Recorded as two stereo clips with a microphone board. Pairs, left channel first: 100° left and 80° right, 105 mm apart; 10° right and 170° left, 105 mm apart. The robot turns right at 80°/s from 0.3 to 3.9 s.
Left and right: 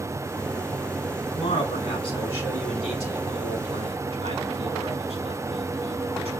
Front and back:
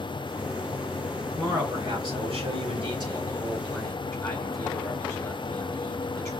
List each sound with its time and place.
1.4 s a man speaking: 85° left, 4 m; by 6.3 s 75° right, 4 m